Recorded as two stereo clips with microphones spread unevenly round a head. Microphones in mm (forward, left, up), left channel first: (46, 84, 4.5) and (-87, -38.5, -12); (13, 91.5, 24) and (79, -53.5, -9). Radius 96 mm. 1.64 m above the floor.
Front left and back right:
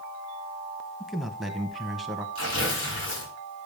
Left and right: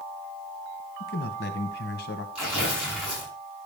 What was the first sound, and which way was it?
A man speaking, 130° left.